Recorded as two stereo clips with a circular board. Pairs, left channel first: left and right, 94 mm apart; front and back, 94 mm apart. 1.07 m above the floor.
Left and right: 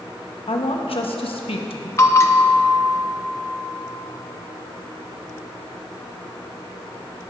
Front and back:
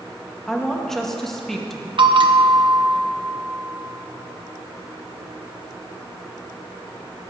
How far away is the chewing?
No chewing in this recording.